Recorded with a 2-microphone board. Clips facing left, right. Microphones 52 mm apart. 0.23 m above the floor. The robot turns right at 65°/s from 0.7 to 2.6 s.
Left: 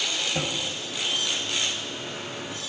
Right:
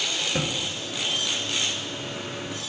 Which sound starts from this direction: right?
A thud, at 0.3 s.